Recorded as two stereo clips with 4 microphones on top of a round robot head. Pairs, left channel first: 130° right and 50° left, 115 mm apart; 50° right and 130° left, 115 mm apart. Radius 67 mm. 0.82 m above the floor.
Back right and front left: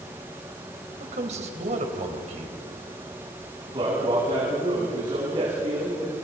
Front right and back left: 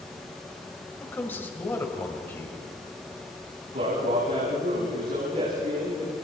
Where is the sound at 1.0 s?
20° left, 4 m.